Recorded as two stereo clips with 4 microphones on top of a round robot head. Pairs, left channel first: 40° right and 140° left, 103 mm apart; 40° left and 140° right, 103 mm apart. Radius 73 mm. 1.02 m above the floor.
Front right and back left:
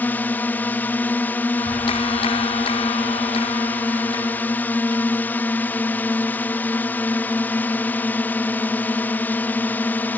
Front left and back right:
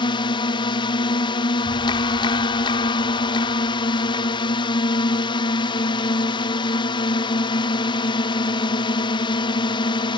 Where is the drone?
25° left.